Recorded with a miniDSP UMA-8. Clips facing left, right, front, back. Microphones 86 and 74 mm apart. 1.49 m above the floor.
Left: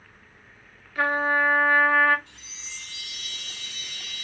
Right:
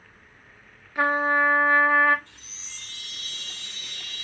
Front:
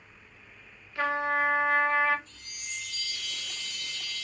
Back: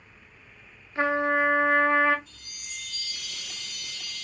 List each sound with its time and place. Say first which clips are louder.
0.9 s a trumpet: right 1 dB, back 4 dB; 145° right, 0.7 m
2.3 s a chime: left 3 dB, front 2 dB; 55° right, 2.5 m